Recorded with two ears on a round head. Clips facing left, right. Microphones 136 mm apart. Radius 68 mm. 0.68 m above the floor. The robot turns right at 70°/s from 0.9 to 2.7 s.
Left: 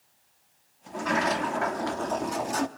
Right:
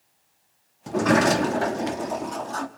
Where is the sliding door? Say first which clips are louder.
Right 8 dB; 95° right, 0.6 m; by 2.7 s 30° left, 0.6 m.